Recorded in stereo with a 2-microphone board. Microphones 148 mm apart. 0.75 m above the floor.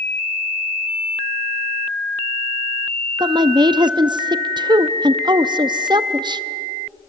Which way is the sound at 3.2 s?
30° right (ahead or behind).